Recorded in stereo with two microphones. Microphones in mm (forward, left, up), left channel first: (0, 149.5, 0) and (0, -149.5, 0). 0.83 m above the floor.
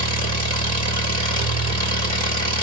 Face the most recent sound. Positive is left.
turn(degrees=-55)  # may be behind; listen again after turning